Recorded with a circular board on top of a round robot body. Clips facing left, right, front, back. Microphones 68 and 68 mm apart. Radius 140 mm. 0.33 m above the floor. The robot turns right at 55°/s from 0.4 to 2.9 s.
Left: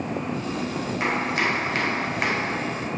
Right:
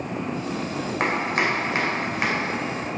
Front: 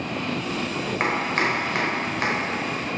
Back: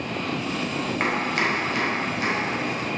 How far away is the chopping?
About 2 m.